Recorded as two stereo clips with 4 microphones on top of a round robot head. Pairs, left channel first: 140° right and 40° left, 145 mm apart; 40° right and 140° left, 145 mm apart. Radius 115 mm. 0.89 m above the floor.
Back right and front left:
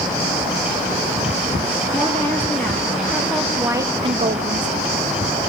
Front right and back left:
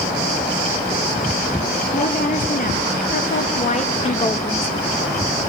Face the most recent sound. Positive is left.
turn(degrees=35)